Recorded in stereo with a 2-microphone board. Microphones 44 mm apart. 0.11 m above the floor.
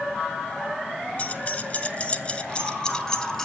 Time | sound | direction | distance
1.2 | keys jangling | 30° left (ahead or behind) | 1.3 m